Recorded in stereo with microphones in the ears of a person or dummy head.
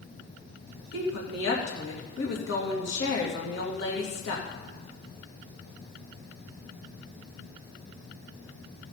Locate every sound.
0.9 s a woman speaking: 70° left (ahead or behind), 2.5 m